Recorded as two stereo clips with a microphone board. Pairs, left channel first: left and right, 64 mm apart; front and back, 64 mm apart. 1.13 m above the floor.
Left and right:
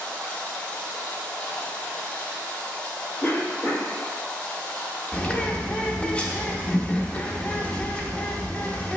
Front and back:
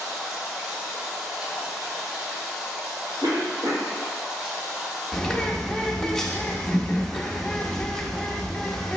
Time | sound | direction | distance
0.0 | running water | 130° left | 0.9 m
3.2 | a cough | 165° left | 1.3 m
5.1 | a bird | 65° left | 0.5 m